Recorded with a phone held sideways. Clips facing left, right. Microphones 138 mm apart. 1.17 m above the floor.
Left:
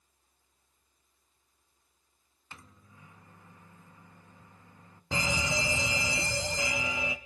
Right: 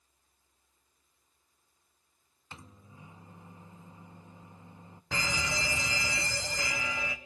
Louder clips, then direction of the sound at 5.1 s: Left 3 dB; 20° left (ahead or behind).